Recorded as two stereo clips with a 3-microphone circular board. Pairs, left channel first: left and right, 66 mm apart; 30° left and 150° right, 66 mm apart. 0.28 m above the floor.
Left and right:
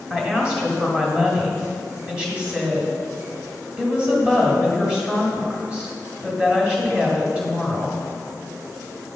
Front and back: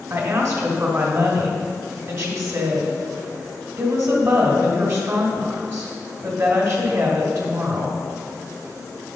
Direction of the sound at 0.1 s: 160° right.